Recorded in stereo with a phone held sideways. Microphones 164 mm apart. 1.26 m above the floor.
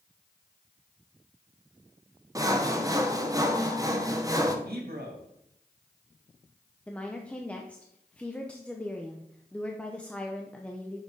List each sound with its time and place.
2.4 s sawing: 20° right (ahead or behind), 0.9 m
4.7 s a man speaking: 75° right (ahead or behind), 2 m
6.9 s a woman speaking: 5° left (ahead or behind), 0.8 m